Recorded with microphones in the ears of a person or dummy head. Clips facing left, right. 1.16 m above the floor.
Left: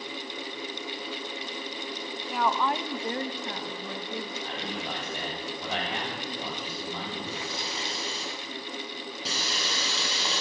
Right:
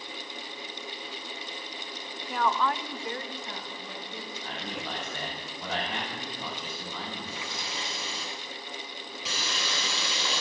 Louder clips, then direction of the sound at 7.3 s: Left 4 dB; 40° left (ahead or behind).